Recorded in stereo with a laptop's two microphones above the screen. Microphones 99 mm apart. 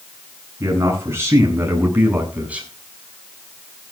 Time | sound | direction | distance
0.6 | a man speaking | 30° right (ahead or behind) | 9.5 m